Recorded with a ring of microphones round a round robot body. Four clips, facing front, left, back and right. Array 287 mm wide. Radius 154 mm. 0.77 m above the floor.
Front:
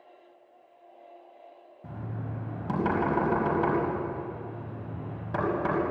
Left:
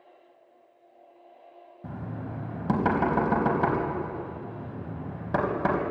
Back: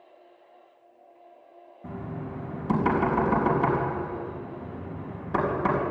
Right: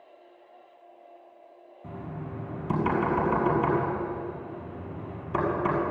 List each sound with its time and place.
1.8 s knocking: 90° left, 4.5 m